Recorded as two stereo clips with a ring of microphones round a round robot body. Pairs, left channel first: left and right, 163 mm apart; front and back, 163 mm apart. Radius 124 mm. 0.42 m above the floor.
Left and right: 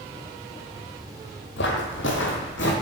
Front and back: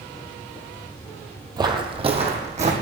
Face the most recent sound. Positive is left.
turn(degrees=135)